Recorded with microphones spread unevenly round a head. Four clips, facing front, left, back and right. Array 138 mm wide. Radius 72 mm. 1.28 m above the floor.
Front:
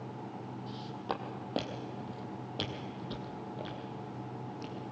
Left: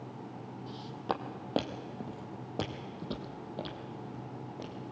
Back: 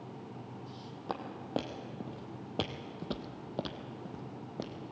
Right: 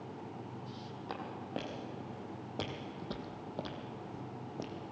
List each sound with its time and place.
0.7 s footsteps: 85° left, 2 m; by 4.8 s 175° right, 2.5 m